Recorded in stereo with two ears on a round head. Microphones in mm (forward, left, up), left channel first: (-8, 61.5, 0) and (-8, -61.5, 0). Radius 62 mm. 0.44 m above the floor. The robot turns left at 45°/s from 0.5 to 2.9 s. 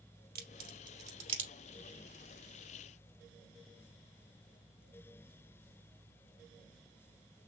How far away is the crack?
About 2.5 m.